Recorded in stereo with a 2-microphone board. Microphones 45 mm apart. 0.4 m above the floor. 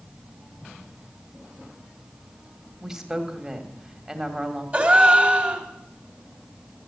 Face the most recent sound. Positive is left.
turn(degrees=-30)  # may be behind; listen again after turning